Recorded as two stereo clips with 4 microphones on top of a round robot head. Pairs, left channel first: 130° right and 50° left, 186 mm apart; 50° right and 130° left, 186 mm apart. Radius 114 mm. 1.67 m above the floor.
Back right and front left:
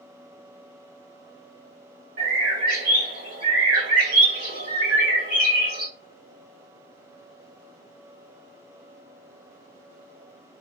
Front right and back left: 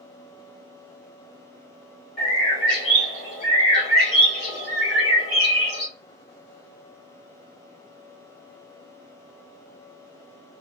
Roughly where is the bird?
Ahead.